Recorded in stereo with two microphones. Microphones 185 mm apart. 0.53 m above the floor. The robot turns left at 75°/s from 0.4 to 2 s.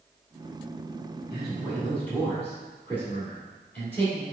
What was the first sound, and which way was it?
A man speaking, 140° right.